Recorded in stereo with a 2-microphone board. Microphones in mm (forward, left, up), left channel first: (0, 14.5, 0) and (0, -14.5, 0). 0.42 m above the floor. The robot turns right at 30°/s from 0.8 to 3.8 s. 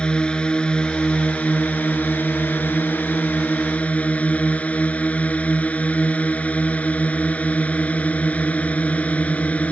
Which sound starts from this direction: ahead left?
A drone, at 0.0 s.